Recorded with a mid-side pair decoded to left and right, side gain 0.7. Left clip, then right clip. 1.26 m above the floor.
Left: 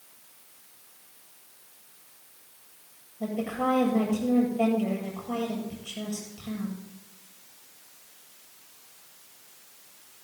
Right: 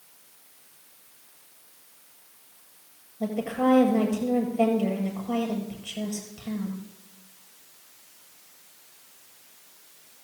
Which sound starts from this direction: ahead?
A woman speaking, at 3.2 s.